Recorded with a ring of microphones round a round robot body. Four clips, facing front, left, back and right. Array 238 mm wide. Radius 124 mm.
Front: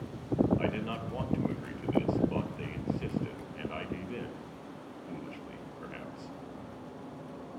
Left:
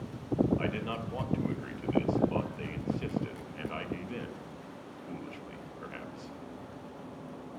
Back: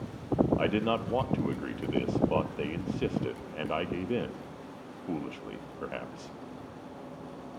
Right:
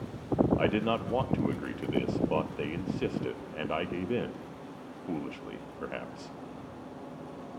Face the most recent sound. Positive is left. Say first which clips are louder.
# right 7 dB, back 6 dB
turn(degrees=-140)